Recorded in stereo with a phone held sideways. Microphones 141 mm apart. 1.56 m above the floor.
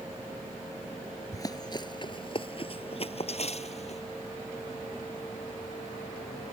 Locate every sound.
1.3 s running footsteps: 25° left (ahead or behind); by 4.0 s 50° left (ahead or behind)